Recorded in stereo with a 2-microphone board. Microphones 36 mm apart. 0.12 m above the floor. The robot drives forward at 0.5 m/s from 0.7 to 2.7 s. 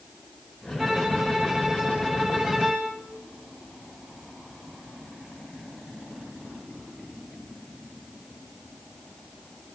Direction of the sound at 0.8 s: 20° right (ahead or behind).